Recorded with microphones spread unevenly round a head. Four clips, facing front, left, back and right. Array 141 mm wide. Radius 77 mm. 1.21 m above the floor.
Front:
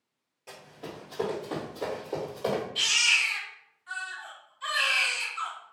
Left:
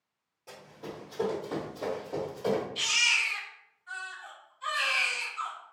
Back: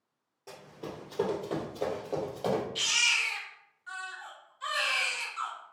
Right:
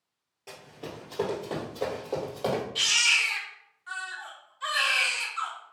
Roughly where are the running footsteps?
Behind right.